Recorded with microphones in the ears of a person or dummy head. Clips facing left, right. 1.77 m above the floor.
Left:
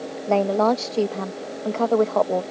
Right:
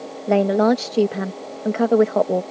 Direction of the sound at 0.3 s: 25° right (ahead or behind).